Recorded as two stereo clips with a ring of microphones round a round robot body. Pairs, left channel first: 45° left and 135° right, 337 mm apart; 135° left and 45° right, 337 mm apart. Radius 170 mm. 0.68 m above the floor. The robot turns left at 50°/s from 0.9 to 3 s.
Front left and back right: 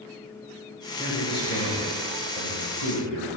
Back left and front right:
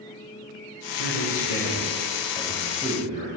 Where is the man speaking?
125° left, 3 m; by 3.3 s 25° left, 3 m.